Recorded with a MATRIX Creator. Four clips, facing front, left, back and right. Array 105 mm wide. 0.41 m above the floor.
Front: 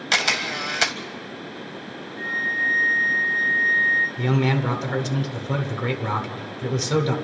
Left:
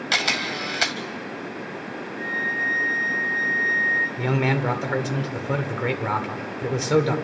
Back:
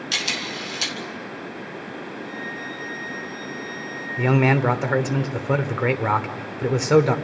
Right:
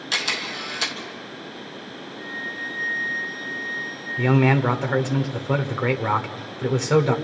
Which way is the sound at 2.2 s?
30° left.